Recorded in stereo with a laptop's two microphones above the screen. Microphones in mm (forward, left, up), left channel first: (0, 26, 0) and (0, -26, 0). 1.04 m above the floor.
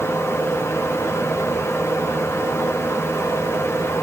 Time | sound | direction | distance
0.0 | a fan | 55° left (ahead or behind) | 0.9 m